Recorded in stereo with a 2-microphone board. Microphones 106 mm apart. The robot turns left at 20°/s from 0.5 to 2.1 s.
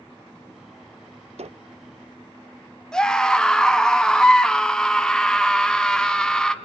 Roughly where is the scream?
Centre.